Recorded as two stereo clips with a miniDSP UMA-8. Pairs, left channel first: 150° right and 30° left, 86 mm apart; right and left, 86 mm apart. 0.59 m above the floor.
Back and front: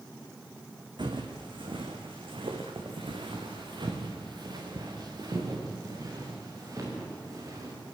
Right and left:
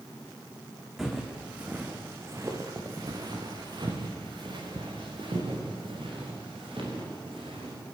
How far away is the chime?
No chime in this recording.